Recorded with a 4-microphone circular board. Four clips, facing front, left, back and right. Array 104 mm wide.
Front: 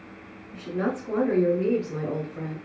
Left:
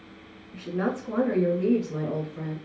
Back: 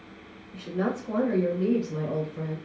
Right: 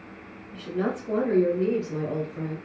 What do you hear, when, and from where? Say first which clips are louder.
0.5 s a woman speaking: even, front 1 dB; 80° left, 1.3 m; by 2.6 s 5° right, 1.5 m